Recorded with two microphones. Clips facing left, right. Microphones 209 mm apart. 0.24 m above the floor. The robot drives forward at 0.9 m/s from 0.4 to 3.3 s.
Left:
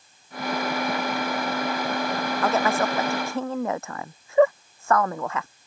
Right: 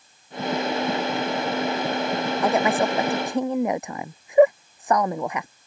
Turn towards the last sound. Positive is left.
turn(degrees=-15)  # may be behind; listen again after turning